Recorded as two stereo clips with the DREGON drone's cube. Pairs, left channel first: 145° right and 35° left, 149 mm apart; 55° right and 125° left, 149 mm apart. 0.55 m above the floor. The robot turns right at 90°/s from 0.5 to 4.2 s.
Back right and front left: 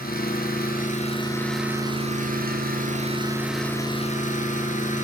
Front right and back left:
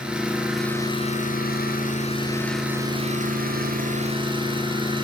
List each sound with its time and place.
0.0 s an engine running: 150° right, 4 m; by 5.0 s straight behind, 4 m